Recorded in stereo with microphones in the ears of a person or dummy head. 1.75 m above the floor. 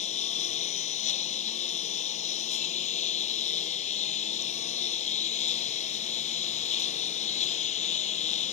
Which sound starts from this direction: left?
A lawn mower, at 0.0 s.